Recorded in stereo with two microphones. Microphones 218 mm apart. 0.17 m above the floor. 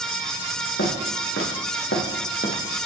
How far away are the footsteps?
About 3.5 m.